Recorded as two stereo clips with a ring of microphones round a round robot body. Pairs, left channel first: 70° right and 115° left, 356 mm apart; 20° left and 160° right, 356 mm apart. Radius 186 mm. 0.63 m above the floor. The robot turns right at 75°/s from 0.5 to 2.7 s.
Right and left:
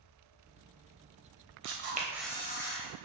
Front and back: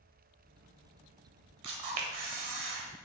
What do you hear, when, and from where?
1.6 s a camera shutter: 160° left, 1.9 m; by 2.9 s 120° right, 1.9 m